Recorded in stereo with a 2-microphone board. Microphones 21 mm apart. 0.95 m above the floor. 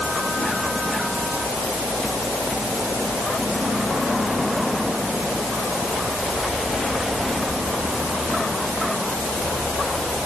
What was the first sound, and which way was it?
Only background noise.